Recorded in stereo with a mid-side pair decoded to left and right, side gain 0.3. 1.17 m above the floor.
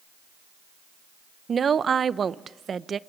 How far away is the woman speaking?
About 0.7 m.